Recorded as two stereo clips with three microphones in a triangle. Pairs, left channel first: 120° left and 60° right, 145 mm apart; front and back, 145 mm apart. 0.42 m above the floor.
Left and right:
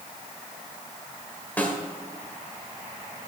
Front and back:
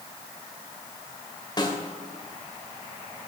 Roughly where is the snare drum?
Ahead left.